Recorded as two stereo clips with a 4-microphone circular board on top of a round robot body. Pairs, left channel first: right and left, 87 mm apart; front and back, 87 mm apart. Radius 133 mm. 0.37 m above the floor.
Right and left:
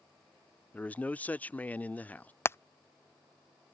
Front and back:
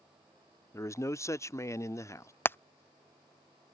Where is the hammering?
45° right.